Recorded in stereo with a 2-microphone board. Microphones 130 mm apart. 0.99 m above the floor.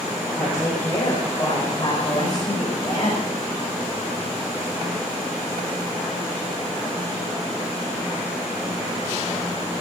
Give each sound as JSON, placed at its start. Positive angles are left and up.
{"t": 0.4, "sound": "a woman speaking", "side_deg": 25, "distance_m": 4.0}